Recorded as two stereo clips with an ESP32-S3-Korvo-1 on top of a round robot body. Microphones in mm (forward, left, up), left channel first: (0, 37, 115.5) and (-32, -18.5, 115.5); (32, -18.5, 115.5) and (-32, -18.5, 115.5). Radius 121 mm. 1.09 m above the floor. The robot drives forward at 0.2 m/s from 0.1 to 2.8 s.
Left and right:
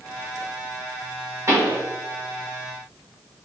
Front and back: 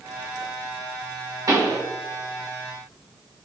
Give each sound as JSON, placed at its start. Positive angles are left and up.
{"t": 1.5, "sound": "a pop", "azimuth_deg": -160, "distance_m": 1.5}